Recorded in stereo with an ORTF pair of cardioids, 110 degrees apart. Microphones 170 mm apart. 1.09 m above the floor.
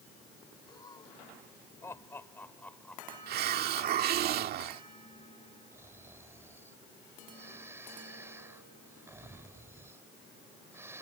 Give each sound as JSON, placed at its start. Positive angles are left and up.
{"t": 0.7, "sound": "laughter", "azimuth_deg": 25}
{"t": 3.3, "sound": "a hiss", "azimuth_deg": -65}
{"t": 5.7, "sound": "snoring", "azimuth_deg": -15}